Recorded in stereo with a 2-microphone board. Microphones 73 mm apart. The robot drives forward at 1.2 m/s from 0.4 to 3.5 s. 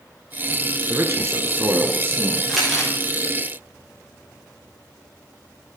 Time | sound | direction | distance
0.9 | a man speaking | 40° right (ahead or behind) | 2 m
2.5 | crumpling | centre (ahead or behind) | 8 m